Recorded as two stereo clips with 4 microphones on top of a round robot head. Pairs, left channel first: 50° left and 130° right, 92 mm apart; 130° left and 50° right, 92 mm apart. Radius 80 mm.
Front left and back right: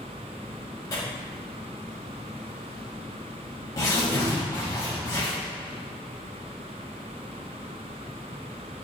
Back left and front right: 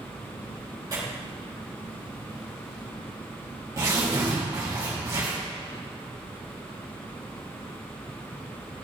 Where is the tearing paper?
Straight ahead, 4 m.